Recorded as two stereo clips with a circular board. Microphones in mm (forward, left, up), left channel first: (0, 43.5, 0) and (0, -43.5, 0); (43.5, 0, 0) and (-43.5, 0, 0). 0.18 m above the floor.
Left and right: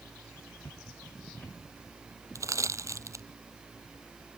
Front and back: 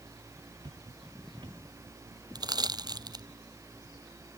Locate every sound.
0.6 s footsteps: 155° left
2.4 s crushing: 145° right